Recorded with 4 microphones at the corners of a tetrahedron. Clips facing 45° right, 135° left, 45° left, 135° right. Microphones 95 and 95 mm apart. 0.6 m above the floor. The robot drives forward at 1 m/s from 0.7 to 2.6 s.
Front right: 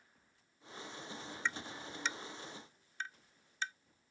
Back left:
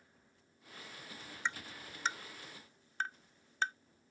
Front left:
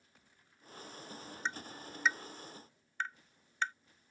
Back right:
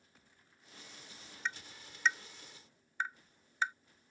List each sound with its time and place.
1.4 s tapping: 80° left; by 3.7 s 150° left